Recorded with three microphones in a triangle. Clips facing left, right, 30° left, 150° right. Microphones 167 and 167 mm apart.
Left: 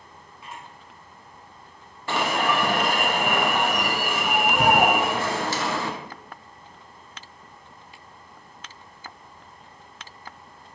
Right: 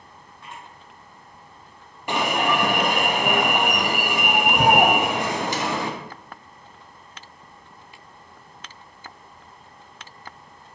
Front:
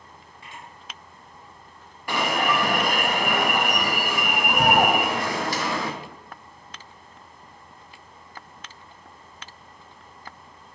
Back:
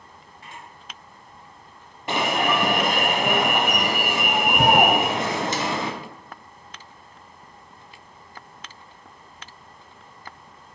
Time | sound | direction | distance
0.4 | a camera shutter | 170° left | 1.3 m
2.1 | an alarm | 135° right | 0.5 m